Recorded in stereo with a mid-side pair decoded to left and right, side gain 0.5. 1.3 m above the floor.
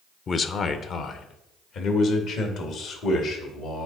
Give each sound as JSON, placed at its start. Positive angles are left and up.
{"t": 0.3, "sound": "a man speaking", "azimuth_deg": 40, "distance_m": 0.7}